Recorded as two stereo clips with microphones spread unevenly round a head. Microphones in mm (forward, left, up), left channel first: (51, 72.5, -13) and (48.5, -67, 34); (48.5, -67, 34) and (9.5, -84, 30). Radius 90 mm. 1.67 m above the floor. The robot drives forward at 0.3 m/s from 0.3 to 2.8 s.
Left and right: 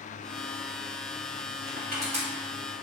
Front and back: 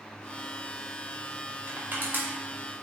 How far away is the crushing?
About 1.3 m.